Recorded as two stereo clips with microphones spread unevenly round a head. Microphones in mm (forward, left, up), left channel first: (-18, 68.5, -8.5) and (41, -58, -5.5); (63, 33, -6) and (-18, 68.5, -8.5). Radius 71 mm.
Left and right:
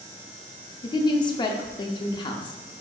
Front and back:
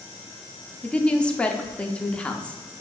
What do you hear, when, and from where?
0.8 s a woman speaking: 55° left, 0.6 m